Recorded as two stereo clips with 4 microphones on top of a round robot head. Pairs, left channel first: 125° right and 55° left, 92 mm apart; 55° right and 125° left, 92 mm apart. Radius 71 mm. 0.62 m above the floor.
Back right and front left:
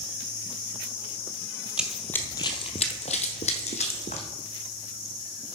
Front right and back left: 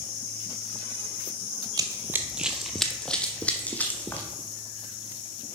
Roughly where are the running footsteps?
Behind left.